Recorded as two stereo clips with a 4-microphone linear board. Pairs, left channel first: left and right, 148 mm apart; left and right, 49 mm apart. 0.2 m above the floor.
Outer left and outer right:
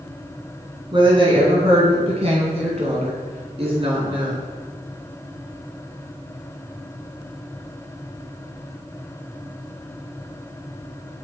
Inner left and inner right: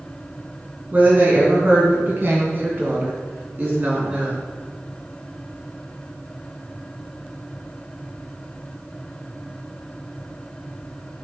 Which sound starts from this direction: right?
A woman speaking, at 0.9 s.